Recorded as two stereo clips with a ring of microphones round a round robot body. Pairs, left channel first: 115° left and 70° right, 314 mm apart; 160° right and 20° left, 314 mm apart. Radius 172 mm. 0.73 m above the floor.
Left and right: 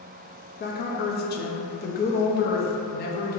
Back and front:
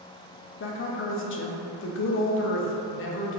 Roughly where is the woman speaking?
Behind.